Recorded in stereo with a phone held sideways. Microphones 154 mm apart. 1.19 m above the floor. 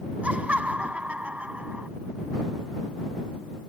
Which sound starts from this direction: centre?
Laughter, at 0.2 s.